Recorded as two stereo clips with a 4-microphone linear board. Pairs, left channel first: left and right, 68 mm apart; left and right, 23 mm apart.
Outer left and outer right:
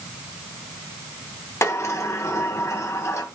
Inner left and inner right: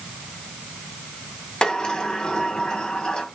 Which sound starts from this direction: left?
A sliding door, at 1.6 s.